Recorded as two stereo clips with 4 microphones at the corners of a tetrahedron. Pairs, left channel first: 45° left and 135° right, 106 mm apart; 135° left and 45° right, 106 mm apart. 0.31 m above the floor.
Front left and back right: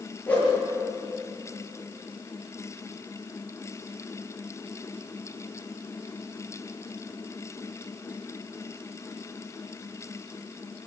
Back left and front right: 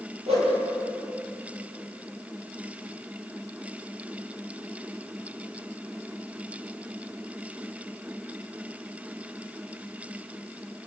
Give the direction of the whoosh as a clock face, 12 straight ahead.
1 o'clock.